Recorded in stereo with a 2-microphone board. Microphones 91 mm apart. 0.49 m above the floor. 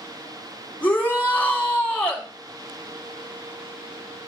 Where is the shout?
20° left (ahead or behind), 2.5 m.